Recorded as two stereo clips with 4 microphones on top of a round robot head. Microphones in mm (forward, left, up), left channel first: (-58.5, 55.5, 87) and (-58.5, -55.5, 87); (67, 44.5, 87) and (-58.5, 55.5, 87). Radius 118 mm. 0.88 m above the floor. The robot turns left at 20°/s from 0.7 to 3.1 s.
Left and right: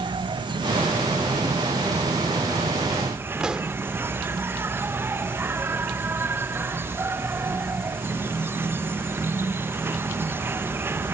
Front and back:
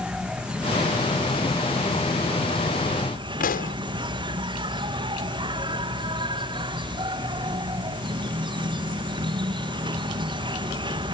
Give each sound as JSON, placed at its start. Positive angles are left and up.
{"t": 0.0, "sound": "an insect", "azimuth_deg": -105}
{"t": 3.4, "sound": "a pop", "azimuth_deg": -5}